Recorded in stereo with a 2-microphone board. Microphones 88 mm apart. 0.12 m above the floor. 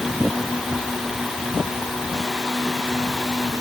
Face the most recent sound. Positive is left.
No sound to turn to.